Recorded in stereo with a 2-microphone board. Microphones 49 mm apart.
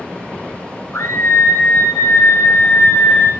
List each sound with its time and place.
0.9 s a scream: 60° left (ahead or behind), 3.5 m; by 3.3 s 35° left (ahead or behind), 2.5 m